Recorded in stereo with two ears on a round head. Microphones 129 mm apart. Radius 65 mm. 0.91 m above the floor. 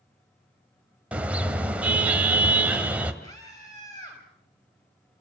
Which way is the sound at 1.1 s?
10° right (ahead or behind).